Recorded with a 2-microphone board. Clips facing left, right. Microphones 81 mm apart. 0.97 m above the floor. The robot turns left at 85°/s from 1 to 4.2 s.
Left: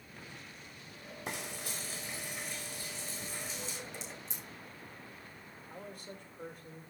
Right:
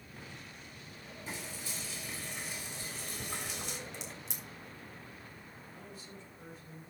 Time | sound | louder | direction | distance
1.3 | frying | left 3 dB | 100° left | 3.5 m
3.9 | a crack | even | 60° right (ahead or behind) | 2.5 m
5.7 | a man speaking | left 6 dB | 50° left (ahead or behind) | 3 m